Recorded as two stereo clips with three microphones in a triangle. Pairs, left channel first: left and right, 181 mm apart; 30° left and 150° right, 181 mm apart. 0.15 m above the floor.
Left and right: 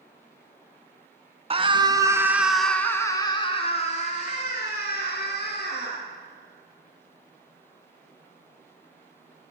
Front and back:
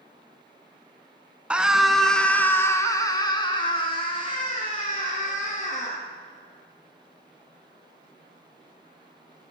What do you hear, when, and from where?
1.5 s a scream: 70° right, 1.4 m; by 6.0 s 85° left, 2.5 m